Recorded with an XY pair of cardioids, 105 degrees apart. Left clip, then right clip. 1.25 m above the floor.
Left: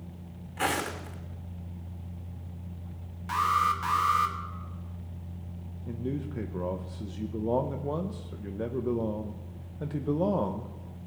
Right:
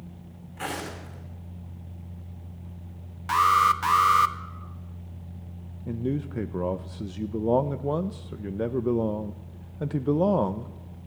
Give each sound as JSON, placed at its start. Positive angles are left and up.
{"t": 0.6, "sound": "footsteps", "azimuth_deg": 35, "distance_m": 4.5}
{"t": 3.3, "sound": "an alarm", "azimuth_deg": -50, "distance_m": 1.1}
{"t": 5.9, "sound": "a man speaking", "azimuth_deg": -35, "distance_m": 0.6}